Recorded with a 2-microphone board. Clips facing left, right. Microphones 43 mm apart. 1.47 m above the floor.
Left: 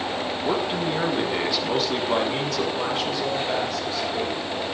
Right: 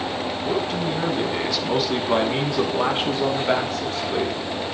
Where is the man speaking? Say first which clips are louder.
Even; 30° left (ahead or behind), 4 m; by 4.4 s 60° right (ahead or behind), 4.5 m.